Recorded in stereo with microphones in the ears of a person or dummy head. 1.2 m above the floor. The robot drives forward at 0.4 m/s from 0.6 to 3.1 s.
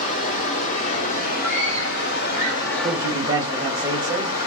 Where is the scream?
10° left (ahead or behind), 0.8 m.